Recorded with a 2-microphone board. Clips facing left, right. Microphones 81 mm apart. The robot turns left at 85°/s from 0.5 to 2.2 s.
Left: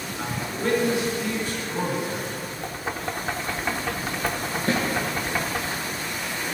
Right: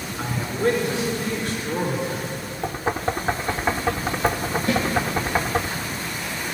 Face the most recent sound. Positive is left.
turn(degrees=35)  # may be behind; listen again after turning